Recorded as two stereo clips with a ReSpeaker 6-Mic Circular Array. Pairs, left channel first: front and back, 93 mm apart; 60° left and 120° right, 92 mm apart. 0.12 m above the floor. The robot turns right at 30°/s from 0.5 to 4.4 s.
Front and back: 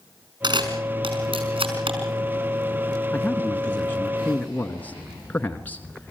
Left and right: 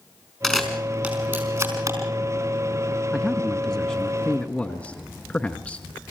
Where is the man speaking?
25° right, 1.1 m; by 6.1 s 15° left, 1.1 m.